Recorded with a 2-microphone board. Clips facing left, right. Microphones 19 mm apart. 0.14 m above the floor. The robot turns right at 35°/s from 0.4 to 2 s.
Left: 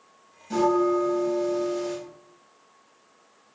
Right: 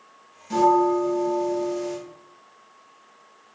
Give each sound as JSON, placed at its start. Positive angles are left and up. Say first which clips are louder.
{"t": 0.5, "sound": "a bell", "louder": "right 3 dB", "azimuth_deg": -30, "distance_m": 1.5}